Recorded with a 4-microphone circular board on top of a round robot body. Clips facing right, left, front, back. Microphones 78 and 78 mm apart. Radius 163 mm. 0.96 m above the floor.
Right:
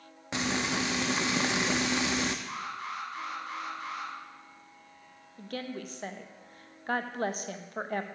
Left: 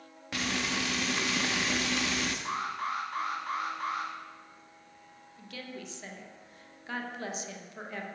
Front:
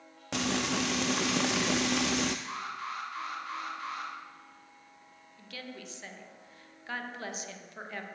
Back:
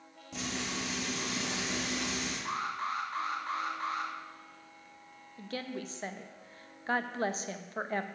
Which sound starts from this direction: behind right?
A woman speaking, at 5.4 s.